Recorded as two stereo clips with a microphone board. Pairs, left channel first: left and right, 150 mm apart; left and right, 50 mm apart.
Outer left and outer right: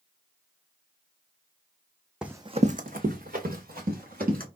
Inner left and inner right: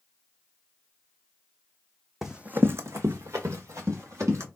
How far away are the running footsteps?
About 0.6 m.